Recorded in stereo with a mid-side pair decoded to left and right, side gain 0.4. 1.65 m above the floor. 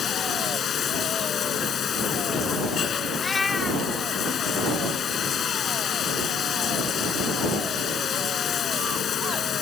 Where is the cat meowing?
35° left.